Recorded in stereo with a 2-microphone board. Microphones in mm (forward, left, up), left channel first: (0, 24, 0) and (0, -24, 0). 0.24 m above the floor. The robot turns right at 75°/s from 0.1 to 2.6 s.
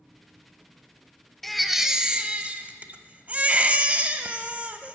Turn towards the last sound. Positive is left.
turn(degrees=-25)  # may be behind; listen again after turning